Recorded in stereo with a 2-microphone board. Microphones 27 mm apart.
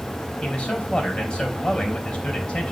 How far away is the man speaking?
About 3.5 m.